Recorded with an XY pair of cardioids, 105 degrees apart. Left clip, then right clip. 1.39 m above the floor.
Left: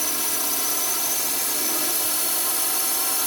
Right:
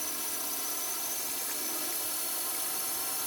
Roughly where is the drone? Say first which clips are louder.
Left 11 dB; left.